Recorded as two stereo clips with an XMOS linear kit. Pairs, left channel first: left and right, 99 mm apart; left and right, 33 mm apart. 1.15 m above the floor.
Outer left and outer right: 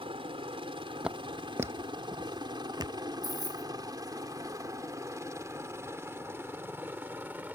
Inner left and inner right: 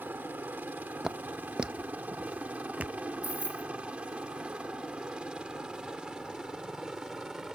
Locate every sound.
0.0 s a helicopter: 65° right (ahead or behind); by 7.6 s 15° right (ahead or behind)
1.0 s footsteps: 10° right (ahead or behind); by 3.0 s 45° right (ahead or behind)
3.2 s keys jangling: 45° right (ahead or behind)